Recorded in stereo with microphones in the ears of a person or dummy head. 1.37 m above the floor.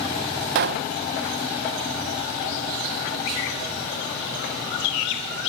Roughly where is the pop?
Right.